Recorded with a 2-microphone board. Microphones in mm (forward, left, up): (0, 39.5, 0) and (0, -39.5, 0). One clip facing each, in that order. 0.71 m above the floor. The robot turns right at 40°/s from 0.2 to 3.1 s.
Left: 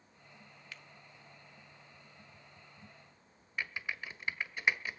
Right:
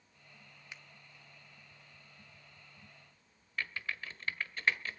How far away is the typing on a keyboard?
About 1.3 m.